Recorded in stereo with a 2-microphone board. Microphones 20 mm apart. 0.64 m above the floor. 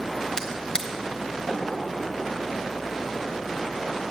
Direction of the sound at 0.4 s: 35° left (ahead or behind).